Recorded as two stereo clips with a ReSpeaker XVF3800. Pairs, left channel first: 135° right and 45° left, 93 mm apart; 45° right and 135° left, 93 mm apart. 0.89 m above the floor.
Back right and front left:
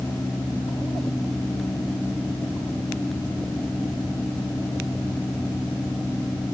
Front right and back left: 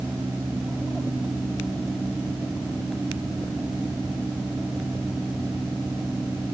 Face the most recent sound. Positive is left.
No sound to turn to.